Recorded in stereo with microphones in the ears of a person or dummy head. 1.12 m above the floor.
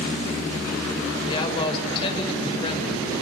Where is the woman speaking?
30° left (ahead or behind), 4.5 m.